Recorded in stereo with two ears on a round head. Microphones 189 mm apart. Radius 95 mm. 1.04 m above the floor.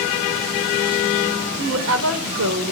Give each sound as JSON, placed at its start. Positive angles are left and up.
{"t": 1.6, "sound": "a woman speaking", "side_deg": -75, "distance_m": 4.5}